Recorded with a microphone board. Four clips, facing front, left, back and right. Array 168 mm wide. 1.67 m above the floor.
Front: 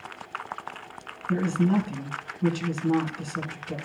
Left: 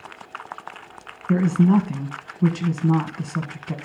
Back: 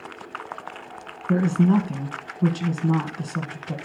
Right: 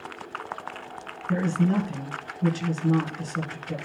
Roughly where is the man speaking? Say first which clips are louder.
Left 6 dB, back 4 dB; behind left.